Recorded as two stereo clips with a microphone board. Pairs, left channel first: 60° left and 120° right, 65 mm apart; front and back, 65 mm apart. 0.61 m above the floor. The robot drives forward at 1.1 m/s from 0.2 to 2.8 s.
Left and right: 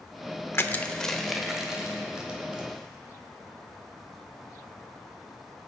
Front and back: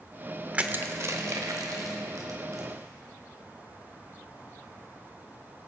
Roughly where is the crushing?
Left.